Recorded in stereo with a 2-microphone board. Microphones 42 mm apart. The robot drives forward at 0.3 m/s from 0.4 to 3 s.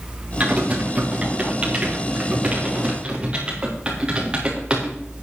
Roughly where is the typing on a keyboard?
Right.